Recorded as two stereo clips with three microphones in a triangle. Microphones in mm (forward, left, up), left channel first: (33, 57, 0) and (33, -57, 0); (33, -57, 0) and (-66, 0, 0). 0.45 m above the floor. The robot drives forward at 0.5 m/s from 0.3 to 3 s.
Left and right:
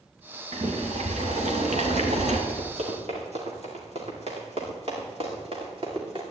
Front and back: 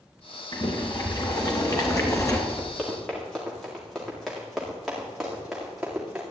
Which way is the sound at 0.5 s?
75° right.